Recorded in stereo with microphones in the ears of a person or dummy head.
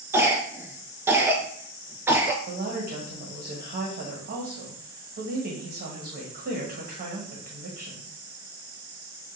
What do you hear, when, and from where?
0.1 s a cough: 15° right (ahead or behind), 0.9 m
2.5 s a woman speaking: 40° right (ahead or behind), 1.1 m